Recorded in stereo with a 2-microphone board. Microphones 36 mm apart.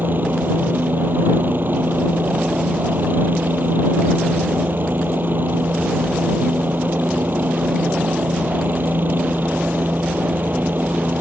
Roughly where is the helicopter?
Right.